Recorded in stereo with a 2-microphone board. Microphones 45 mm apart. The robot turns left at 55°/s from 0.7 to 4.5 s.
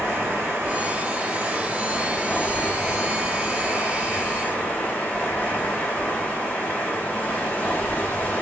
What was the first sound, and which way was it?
Running water, 115° right.